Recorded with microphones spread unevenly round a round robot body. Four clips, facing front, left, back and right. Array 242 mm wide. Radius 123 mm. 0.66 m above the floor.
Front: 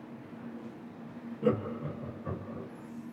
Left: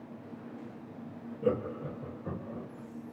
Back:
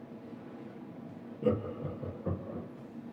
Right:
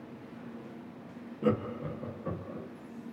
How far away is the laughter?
About 0.7 m.